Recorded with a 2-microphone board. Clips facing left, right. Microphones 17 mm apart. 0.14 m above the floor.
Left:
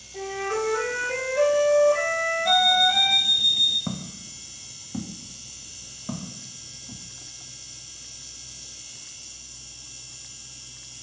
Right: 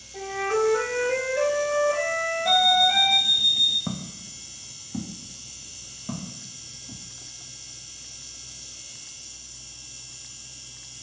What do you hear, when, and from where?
0.1 s a flute: 10° right (ahead or behind), 3.5 m
2.5 s an alarm clock: 65° left (ahead or behind), 1.8 m
3.9 s footsteps: 5° left (ahead or behind), 1.1 m; by 7.0 s 25° left (ahead or behind), 3 m